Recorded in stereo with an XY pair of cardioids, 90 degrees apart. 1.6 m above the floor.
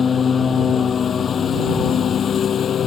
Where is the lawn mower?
45° left; by 2.9 s 60° left.